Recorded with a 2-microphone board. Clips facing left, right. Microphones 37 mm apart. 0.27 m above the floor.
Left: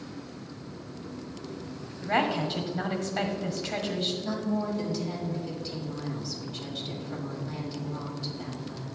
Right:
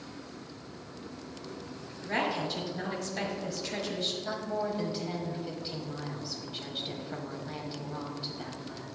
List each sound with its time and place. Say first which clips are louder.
2.0 s a woman speaking: left 4 dB; 35° left (ahead or behind), 1.4 m
4.2 s a woman speaking: left 3 dB; 20° right (ahead or behind), 1.4 m